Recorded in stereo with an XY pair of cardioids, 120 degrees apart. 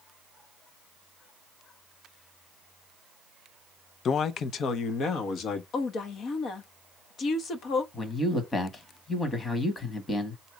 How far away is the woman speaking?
About 1.0 m.